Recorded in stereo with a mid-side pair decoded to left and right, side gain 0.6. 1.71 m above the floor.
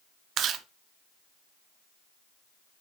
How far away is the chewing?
About 0.5 m.